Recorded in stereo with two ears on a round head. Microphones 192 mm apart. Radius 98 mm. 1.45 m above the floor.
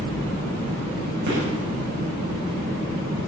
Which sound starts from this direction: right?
A gunshot, at 1.3 s.